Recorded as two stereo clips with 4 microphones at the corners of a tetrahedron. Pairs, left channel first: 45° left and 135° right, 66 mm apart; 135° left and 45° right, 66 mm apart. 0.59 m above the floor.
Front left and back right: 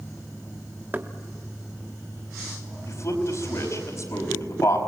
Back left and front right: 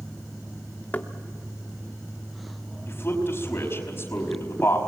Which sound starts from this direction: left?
A man speaking, at 2.9 s.